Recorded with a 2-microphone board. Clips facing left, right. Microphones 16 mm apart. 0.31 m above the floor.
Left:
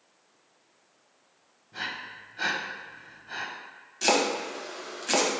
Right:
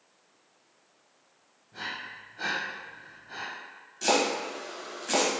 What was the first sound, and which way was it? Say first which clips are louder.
Breathing: left 2 dB; 35° left (ahead or behind).